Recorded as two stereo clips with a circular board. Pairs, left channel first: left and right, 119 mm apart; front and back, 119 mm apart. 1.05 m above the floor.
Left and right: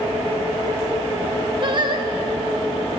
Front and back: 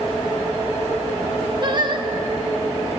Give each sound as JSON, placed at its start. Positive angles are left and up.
{"t": 1.6, "sound": "singing", "azimuth_deg": -135, "distance_m": 1.4}